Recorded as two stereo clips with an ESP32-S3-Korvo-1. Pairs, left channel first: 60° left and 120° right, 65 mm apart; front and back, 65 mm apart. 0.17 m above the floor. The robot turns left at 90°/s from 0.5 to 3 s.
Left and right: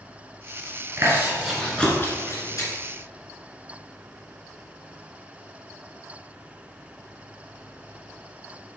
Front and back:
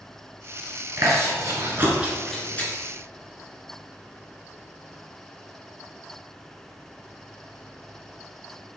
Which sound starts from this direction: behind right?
Chewing, at 1.0 s.